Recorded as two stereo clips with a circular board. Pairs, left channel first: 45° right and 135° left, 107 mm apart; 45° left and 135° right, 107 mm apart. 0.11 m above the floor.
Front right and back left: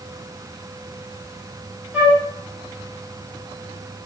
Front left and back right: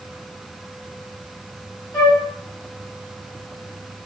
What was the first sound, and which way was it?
A flute, 75° left.